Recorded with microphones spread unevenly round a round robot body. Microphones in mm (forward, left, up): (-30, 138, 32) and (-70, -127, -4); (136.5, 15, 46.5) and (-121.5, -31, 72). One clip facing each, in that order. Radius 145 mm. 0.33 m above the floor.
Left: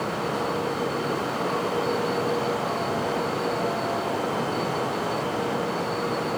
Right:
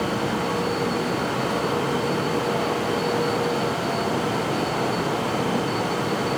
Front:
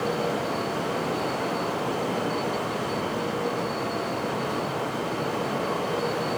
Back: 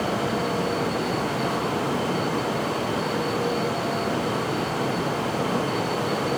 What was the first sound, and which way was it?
Only background noise.